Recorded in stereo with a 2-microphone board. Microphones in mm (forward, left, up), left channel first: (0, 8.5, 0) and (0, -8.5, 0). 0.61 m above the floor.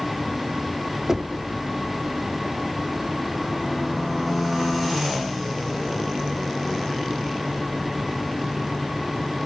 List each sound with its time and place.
1.1 s knocking: 35° right (ahead or behind), 0.9 m